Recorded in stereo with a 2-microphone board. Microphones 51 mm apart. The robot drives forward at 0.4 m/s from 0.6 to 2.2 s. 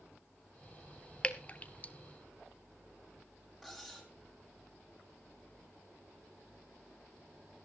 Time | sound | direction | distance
1.2 | dripping | 25° left (ahead or behind) | 1.0 m
3.6 | cutlery clinking | centre (ahead or behind) | 3 m